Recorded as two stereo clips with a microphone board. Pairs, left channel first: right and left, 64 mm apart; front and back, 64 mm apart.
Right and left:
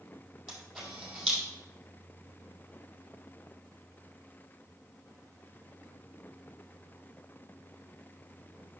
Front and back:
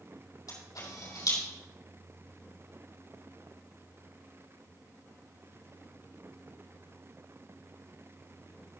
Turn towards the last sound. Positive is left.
turn(degrees=0)